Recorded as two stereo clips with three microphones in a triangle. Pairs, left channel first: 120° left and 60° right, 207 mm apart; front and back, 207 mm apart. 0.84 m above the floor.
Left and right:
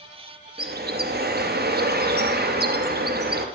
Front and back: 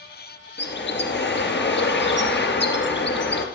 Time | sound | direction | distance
0.6 | a bird | 25° right | 2 m